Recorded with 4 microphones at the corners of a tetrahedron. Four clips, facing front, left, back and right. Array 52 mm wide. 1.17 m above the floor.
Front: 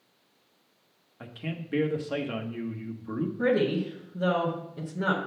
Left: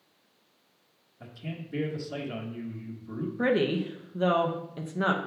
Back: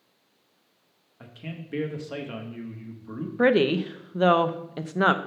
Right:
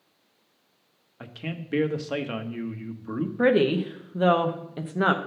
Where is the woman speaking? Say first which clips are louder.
Right 5 dB, back 5 dB; 160° right, 0.6 m.